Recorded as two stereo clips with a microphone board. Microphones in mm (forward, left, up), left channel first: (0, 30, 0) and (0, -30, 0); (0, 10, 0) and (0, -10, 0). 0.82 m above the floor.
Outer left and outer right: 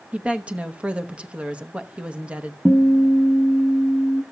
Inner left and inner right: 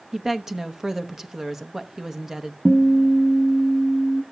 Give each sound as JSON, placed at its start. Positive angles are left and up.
{"t": 0.1, "sound": "a woman speaking", "side_deg": -20, "distance_m": 0.8}
{"t": 2.6, "sound": "a guitar", "side_deg": 5, "distance_m": 1.2}